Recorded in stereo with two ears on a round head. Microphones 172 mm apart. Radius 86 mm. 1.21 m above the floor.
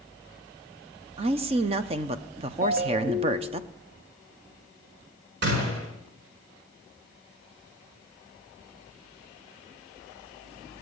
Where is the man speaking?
30° right (ahead or behind), 0.7 m.